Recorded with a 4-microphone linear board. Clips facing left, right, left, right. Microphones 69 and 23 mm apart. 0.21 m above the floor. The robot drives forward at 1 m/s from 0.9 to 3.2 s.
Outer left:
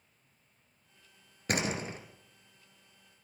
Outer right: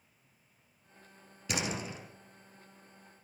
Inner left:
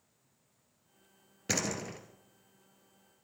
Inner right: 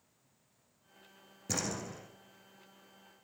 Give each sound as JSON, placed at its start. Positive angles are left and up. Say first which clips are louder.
{"t": 1.5, "sound": "a door slam", "louder": "outer left 3 dB, inner left 3 dB", "side_deg": 50, "distance_m": 2.5}